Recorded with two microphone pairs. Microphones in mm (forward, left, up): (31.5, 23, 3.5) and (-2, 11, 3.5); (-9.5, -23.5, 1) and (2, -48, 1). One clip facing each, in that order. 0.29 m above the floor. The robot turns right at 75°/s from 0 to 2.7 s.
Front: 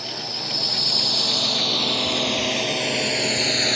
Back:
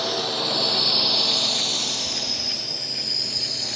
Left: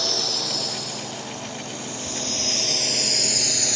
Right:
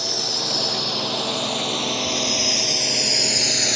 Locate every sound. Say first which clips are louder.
0.0 s a drone: back 6 dB, even; 165° right; by 3.8 s straight ahead